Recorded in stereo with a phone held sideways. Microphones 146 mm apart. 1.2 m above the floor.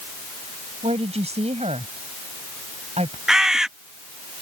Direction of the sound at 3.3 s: 5° right (ahead or behind).